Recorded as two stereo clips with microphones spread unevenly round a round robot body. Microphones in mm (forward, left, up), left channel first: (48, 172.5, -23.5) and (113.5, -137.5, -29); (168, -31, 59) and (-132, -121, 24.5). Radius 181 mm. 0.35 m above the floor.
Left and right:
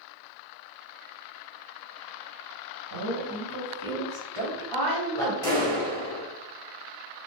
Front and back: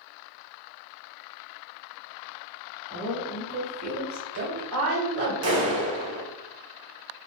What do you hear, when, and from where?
2.9 s a woman speaking: 85° right, 1.7 m; by 5.3 s 175° left, 2.5 m
5.4 s a clap: straight behind, 1.5 m